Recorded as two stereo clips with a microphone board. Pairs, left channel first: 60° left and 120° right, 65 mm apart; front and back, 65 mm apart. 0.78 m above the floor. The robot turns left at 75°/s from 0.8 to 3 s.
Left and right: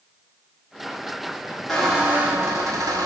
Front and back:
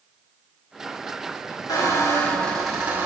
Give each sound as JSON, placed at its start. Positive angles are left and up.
{"t": 1.7, "sound": "a squeak", "azimuth_deg": -20, "distance_m": 1.3}